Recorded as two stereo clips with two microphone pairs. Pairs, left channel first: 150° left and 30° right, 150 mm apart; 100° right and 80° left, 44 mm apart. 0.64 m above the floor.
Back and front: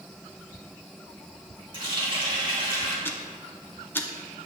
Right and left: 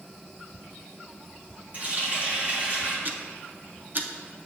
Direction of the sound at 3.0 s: 80° left.